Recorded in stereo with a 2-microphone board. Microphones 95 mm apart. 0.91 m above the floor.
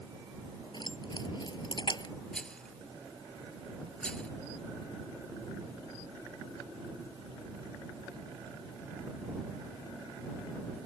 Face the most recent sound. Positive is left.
turn(degrees=10)  # may be behind; listen again after turning